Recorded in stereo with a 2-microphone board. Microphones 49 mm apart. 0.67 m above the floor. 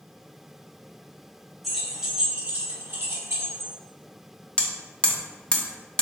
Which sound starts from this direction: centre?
Keys jangling, at 1.6 s.